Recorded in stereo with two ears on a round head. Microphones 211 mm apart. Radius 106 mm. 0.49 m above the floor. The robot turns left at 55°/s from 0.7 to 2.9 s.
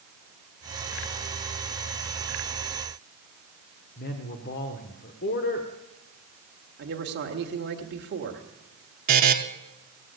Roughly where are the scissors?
No scissors in this recording.